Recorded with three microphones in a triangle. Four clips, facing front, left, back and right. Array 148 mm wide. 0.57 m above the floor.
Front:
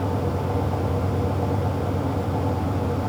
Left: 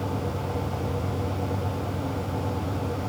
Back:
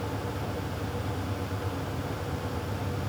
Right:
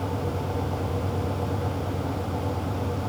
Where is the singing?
No singing in this recording.